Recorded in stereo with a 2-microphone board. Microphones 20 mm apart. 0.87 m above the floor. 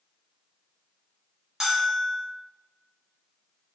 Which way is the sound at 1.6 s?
40° right (ahead or behind).